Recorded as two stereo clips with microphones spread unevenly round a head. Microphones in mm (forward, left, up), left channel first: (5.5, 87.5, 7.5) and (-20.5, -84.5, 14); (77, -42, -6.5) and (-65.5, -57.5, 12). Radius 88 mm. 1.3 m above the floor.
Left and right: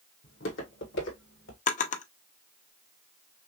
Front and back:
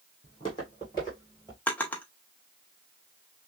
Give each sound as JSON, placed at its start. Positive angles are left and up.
{"t": 0.2, "sound": "footsteps", "azimuth_deg": 70, "distance_m": 2.5}
{"t": 1.7, "sound": "a drawer", "azimuth_deg": 90, "distance_m": 0.6}